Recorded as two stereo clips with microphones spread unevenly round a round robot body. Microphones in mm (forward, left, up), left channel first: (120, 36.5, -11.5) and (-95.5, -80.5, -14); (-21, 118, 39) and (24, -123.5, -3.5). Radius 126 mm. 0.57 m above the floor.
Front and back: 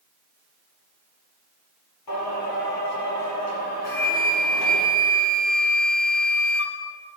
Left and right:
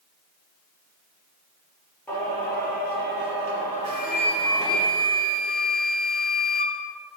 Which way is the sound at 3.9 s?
10° right.